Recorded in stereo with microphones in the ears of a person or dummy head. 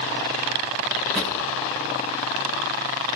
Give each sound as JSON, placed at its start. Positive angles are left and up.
{"t": 1.1, "sound": "a drawer", "side_deg": 0, "distance_m": 4.0}